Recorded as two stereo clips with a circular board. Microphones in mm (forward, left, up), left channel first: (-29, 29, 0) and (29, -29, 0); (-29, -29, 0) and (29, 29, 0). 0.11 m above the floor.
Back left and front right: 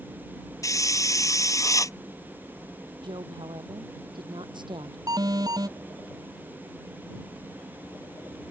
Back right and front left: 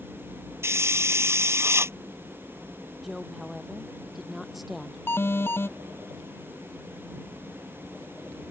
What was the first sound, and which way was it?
A hiss, 95° left.